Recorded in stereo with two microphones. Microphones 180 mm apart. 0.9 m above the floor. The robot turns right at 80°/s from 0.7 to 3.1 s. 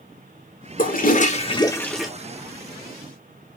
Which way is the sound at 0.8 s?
80° left.